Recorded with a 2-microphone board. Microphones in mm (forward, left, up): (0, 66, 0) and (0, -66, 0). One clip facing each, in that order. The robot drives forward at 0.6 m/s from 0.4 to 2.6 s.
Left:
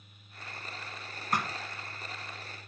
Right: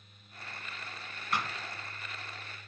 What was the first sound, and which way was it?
A thud, 45° left (ahead or behind).